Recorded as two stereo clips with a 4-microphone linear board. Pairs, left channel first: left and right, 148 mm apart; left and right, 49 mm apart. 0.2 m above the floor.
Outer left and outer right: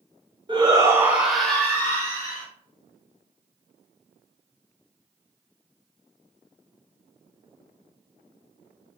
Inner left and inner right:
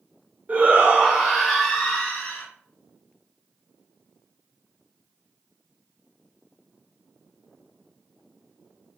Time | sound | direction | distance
0.5 | a shout | 35° right (ahead or behind) | 1.4 m